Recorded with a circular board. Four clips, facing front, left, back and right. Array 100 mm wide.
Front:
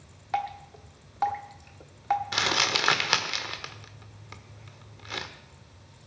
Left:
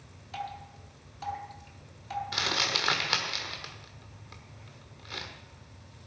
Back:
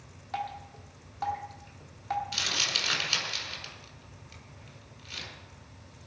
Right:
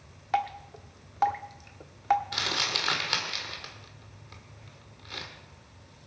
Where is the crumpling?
10° left, 1.3 m.